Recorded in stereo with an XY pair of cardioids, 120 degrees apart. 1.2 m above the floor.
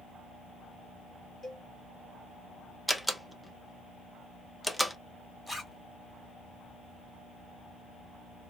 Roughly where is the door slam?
Ahead.